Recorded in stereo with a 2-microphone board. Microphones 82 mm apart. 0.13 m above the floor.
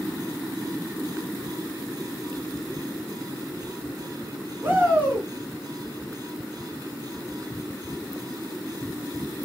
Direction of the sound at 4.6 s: 25° right (ahead or behind).